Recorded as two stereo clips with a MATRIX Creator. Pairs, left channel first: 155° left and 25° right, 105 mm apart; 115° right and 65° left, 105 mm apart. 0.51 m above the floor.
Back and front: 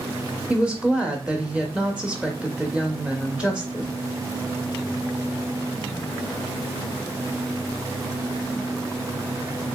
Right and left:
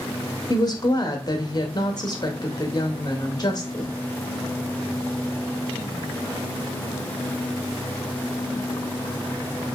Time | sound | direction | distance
0.5 | a woman speaking | 95° right | 0.9 m